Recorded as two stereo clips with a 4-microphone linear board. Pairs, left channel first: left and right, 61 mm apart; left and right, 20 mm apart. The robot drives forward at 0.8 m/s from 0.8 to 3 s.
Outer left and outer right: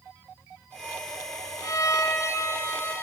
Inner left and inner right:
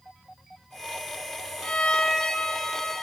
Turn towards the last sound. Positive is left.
turn(degrees=40)  # may be behind; listen again after turning